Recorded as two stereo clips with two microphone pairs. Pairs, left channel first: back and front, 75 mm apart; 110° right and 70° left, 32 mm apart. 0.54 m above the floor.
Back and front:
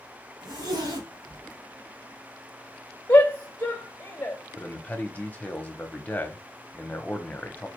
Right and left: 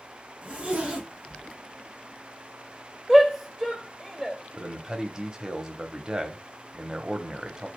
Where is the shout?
140° left, 0.9 m.